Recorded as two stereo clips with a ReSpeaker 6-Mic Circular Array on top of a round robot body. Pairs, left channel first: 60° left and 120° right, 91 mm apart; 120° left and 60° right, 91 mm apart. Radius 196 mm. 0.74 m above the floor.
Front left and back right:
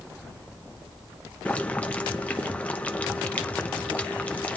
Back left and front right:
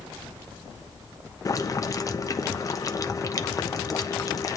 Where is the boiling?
130° left, 1.1 m.